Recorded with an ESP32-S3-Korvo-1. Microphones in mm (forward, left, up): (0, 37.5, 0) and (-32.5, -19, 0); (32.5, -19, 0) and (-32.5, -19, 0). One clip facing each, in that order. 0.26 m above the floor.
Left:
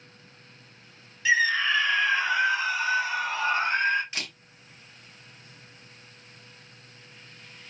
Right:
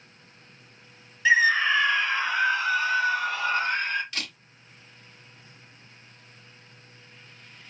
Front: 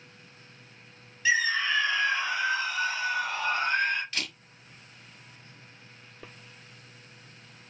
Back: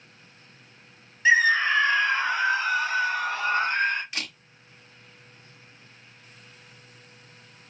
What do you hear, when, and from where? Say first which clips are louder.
1.2 s a scream: right 3 dB, back 6 dB; 170° right, 1.1 m; by 4.0 s 120° left, 2 m
4.1 s a camera shutter: even, even; 115° left, 1.7 m